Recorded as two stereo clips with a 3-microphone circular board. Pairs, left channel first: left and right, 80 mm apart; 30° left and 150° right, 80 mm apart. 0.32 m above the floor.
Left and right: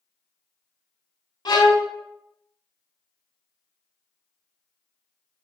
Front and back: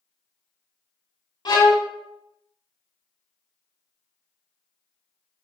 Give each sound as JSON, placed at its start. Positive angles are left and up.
{"t": 1.4, "sound": "a violin", "azimuth_deg": 60, "distance_m": 0.6}